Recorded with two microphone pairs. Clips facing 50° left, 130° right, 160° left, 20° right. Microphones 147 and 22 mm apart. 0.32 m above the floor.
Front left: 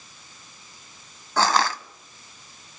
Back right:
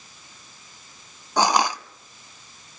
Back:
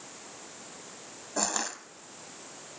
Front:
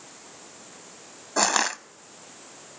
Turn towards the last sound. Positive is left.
turn(degrees=-55)